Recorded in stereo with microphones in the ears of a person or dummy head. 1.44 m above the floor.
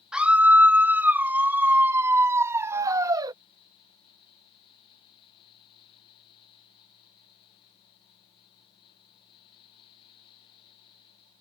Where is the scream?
5° right (ahead or behind); by 3.4 s 20° right (ahead or behind).